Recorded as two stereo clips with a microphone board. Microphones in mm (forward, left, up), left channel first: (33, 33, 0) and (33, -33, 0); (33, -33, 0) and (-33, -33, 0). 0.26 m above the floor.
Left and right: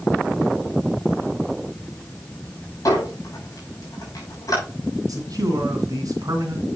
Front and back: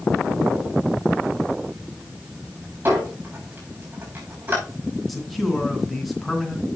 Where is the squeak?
125° left, 5.5 m.